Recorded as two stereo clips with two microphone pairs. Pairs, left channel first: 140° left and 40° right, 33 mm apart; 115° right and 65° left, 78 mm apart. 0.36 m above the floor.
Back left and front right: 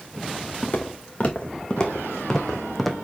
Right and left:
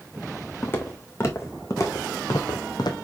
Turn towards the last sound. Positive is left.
turn(degrees=-135)